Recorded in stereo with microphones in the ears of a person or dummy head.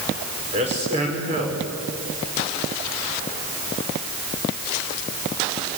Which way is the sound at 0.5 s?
30° right (ahead or behind).